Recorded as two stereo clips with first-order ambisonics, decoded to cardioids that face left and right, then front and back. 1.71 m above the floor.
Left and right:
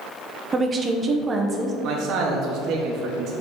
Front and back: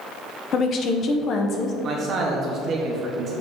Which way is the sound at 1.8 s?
125° right.